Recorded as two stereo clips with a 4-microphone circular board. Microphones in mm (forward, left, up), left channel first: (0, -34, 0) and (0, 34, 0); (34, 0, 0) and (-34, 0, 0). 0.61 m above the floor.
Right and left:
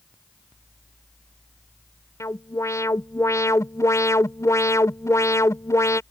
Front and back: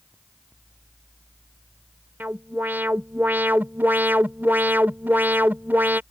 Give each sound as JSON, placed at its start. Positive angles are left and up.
{"t": 2.2, "sound": "an alarm", "azimuth_deg": -125}